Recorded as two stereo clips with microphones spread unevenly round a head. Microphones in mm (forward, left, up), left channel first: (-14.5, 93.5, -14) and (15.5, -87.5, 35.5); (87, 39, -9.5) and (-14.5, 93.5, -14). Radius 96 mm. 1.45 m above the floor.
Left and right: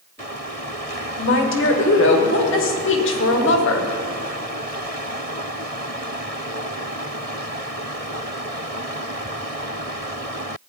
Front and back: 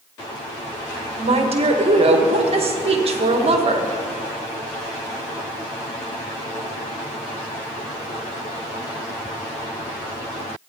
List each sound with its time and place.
1.2 s a woman speaking: 120° left, 1.5 m